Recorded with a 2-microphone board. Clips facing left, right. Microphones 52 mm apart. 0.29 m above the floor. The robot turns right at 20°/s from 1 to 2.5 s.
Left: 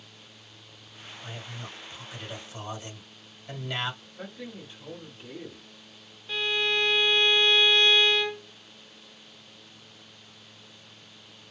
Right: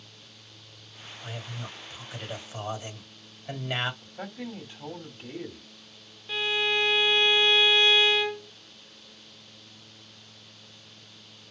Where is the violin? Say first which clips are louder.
Even; 10° right (ahead or behind), 0.8 m.